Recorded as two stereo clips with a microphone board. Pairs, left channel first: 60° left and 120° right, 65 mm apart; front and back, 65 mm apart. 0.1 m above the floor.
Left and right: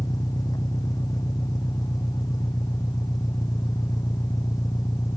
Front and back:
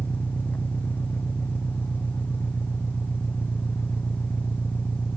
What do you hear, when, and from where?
0.0 s an engine running: 60° left